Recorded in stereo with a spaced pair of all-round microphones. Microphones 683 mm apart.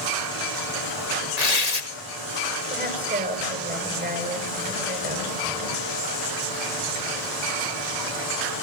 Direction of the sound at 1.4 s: 65° left (ahead or behind).